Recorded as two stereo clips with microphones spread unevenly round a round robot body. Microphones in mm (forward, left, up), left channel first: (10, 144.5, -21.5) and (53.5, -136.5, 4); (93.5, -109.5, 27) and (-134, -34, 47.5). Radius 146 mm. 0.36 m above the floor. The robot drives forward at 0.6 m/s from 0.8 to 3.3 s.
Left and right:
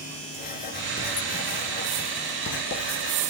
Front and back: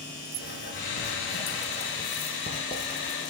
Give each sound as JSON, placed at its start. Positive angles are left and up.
{"t": 0.4, "sound": "writing", "azimuth_deg": 40, "distance_m": 4.5}